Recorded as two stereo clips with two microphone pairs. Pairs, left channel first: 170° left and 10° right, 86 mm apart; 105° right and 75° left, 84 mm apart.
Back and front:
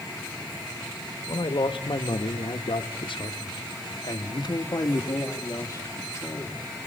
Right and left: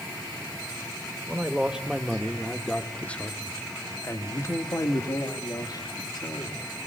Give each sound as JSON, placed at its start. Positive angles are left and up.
{"t": 1.3, "sound": "a man speaking", "azimuth_deg": 150, "distance_m": 1.7}